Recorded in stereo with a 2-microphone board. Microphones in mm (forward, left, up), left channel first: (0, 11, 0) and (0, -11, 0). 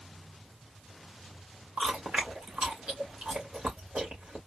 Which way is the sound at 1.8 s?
75° right (ahead or behind).